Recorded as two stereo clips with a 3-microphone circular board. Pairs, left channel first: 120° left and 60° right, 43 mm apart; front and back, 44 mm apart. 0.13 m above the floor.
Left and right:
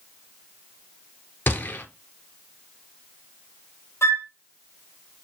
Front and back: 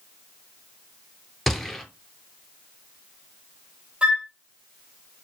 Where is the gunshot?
90° left, 0.6 m.